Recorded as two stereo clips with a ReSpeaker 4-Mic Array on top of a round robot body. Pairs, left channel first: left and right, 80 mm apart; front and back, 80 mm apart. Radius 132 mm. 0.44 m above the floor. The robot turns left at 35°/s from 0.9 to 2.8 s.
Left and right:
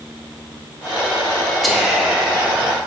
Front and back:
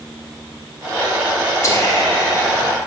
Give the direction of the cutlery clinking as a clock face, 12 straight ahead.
No cutlery clinking in this recording.